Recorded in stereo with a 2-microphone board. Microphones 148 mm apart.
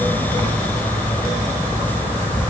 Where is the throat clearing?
I don't hear throat clearing.